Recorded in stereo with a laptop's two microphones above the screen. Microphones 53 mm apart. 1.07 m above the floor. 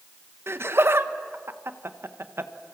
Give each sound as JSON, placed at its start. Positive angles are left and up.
{"t": 0.5, "sound": "laughter", "side_deg": -55, "distance_m": 1.3}